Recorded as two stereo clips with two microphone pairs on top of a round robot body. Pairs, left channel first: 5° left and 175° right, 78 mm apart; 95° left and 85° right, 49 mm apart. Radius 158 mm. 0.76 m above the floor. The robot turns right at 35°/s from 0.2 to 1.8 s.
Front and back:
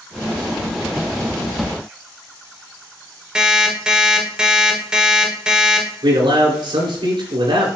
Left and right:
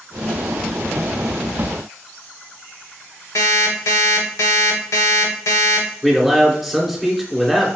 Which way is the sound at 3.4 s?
105° left.